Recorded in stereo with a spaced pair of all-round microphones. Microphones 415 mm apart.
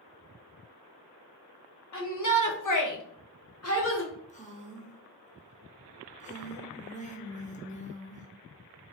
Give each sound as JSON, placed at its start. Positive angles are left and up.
{"t": 1.9, "sound": "a shout", "side_deg": 45, "distance_m": 1.1}
{"t": 4.3, "sound": "a woman speaking", "side_deg": 15, "distance_m": 1.1}